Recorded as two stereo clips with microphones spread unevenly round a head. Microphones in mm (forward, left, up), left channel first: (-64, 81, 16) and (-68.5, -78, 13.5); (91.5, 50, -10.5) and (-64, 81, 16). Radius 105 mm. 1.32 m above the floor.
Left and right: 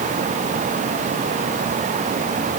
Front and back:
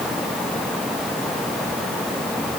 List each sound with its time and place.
Only background noise.